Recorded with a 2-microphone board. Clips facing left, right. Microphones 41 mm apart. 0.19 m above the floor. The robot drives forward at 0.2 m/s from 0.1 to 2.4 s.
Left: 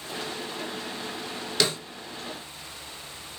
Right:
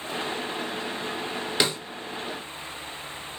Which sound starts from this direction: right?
A snare drum, at 1.6 s.